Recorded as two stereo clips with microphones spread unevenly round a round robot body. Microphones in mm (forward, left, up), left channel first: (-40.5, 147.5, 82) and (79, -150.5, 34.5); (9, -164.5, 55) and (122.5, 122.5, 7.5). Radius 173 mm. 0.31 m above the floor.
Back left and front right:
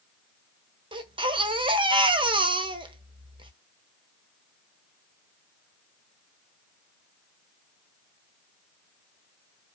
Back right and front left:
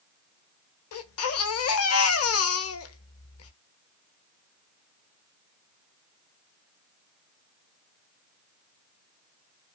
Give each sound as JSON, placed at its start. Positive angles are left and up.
{"t": 0.9, "sound": "a baby crying", "azimuth_deg": -120, "distance_m": 1.2}